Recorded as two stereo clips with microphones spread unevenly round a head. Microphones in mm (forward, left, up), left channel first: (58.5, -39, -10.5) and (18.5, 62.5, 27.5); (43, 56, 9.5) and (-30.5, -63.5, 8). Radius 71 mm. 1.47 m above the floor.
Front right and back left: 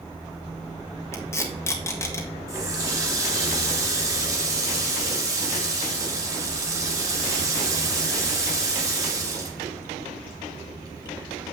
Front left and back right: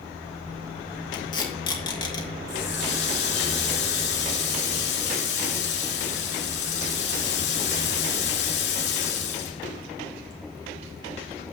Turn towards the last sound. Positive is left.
turn(degrees=55)